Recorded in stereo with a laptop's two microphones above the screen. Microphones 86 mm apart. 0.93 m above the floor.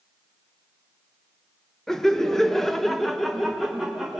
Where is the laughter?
5° left (ahead or behind), 1.1 m; by 4.2 s centre (ahead or behind), 1.3 m.